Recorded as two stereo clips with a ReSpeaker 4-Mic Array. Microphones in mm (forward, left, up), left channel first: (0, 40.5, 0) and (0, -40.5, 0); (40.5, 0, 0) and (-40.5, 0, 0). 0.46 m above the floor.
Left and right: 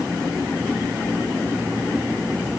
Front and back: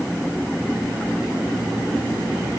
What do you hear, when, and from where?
Only background noise.